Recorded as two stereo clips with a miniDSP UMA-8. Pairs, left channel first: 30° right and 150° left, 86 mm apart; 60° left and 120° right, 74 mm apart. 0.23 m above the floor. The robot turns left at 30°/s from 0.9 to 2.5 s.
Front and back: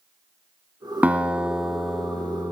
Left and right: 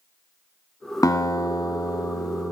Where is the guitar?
80° left, 1.2 m; by 2.5 s 40° left, 1.2 m.